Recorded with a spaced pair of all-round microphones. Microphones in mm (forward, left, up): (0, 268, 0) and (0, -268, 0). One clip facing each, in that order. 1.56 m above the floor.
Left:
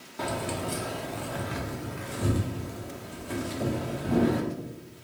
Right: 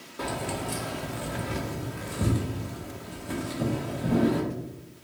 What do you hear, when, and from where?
0.2 s keys jangling: 10° left (ahead or behind), 0.5 m; by 4.4 s 60° right (ahead or behind), 2 m